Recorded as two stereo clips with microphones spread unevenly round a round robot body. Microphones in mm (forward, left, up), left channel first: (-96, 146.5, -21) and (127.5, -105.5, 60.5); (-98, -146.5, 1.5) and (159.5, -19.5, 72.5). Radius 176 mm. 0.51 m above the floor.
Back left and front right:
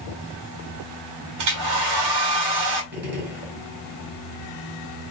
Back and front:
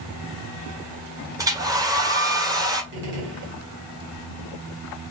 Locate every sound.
1.4 s a hair dryer: 60° right, 1.4 m
2.9 s a gunshot: 15° left, 2 m